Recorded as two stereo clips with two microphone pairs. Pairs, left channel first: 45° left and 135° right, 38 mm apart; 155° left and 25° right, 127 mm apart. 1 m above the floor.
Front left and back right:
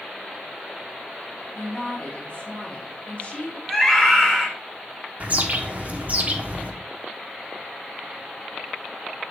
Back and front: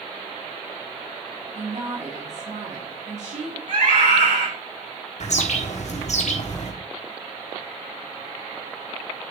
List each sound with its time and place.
1.6 s a woman speaking: 5° right, 3 m
3.7 s a scream: 35° right, 4.5 m
5.2 s a bird: straight behind, 1.3 m